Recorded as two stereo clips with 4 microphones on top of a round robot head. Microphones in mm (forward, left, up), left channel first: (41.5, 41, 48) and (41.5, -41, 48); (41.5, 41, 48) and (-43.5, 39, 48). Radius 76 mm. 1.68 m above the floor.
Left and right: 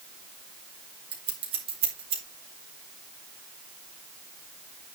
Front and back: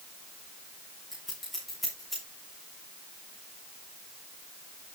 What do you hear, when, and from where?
1.1 s scissors: 85° right, 3 m